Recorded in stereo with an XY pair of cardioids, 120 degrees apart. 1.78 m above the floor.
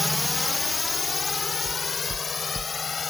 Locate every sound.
0.0 s a drone: 5° left; by 3.1 s 30° left
1.6 s knocking: 30° right